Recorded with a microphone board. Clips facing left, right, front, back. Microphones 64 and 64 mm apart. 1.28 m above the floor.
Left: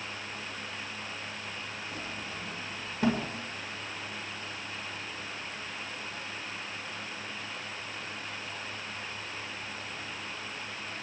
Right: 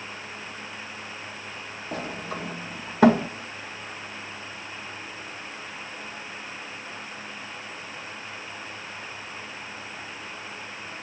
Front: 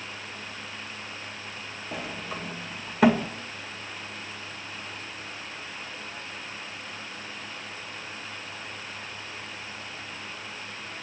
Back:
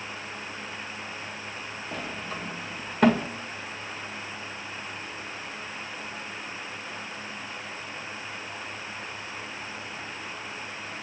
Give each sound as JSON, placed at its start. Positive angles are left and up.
{"t": 1.9, "sound": "a sliding door", "azimuth_deg": -90, "distance_m": 1.7}